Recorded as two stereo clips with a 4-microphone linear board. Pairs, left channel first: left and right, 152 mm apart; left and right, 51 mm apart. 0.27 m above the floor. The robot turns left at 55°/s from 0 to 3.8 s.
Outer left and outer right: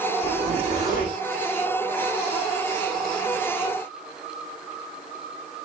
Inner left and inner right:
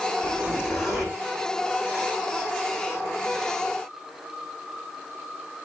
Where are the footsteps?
I don't hear footsteps.